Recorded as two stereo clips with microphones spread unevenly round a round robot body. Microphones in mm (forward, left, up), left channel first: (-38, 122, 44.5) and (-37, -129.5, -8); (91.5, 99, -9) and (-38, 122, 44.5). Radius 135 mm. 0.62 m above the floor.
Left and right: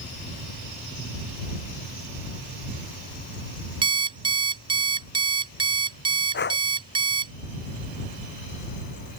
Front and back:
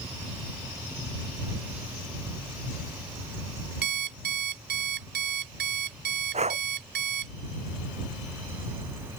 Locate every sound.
3.8 s an alarm clock: 165° right
6.3 s breathing: 140° left